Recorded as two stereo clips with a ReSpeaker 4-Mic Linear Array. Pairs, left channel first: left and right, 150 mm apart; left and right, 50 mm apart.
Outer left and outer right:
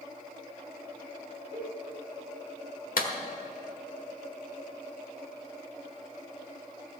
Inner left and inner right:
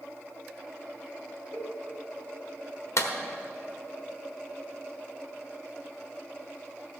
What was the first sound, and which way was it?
A cowbell, 45° left (ahead or behind).